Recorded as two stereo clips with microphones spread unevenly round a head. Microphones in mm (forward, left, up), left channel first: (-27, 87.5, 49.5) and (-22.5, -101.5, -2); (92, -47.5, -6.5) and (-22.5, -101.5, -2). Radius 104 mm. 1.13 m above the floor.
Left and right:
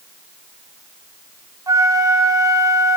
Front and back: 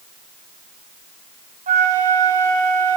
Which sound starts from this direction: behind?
A flute, at 1.7 s.